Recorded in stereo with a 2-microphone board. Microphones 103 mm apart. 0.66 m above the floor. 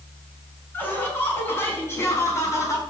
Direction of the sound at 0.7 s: 15° left (ahead or behind).